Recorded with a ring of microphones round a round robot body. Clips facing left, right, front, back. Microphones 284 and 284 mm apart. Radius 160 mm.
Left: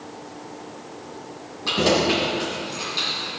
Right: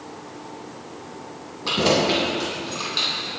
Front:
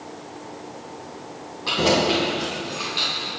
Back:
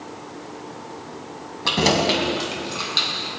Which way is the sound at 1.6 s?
175° right.